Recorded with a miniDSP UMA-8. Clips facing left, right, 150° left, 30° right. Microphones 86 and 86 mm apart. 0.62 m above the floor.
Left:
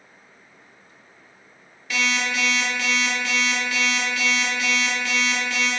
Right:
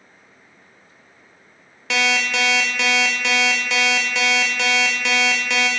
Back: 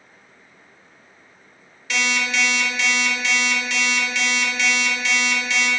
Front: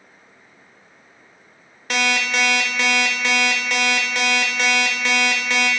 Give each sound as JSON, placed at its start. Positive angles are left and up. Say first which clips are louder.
{"t": 1.9, "sound": "an alarm clock", "louder": "right 3 dB, front 2 dB", "azimuth_deg": -75, "distance_m": 0.6}